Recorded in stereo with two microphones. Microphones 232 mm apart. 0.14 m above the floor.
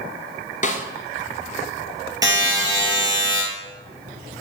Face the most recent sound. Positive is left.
turn(degrees=-15)  # may be behind; listen again after turning